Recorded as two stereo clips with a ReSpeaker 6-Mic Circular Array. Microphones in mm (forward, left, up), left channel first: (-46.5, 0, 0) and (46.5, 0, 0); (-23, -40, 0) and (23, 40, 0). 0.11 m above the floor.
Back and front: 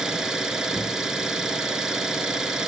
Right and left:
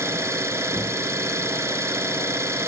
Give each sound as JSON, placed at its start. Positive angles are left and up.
{"t": 0.0, "sound": "an engine running", "azimuth_deg": 75, "distance_m": 1.4}